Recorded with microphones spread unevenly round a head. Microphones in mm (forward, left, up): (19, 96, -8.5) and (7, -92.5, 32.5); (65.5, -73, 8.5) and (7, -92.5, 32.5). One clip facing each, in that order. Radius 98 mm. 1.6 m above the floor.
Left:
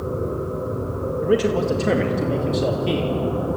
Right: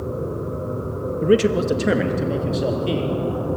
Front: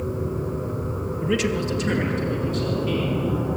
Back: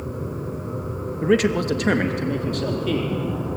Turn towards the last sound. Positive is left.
turn(degrees=180)